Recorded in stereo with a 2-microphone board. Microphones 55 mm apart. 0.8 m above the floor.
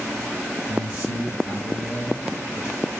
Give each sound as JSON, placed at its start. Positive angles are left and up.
{"t": 0.7, "sound": "a man speaking", "side_deg": -20, "distance_m": 5.5}